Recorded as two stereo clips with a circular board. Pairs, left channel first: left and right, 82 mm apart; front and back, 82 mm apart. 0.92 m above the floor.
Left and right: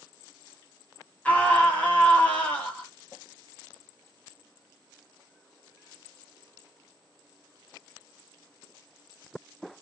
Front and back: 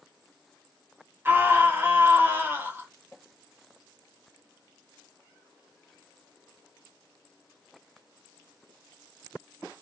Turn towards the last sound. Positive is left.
turn(degrees=145)